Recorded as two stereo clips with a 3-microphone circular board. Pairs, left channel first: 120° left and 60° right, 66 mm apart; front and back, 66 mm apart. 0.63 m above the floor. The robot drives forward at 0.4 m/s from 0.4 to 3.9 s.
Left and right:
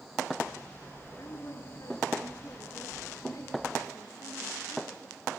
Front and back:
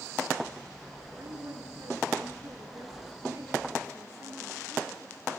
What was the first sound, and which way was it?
A woman speaking, 150° left.